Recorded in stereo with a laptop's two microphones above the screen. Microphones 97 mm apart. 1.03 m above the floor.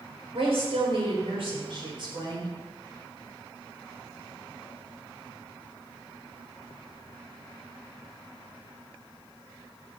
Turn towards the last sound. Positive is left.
turn(degrees=-45)  # may be behind; listen again after turning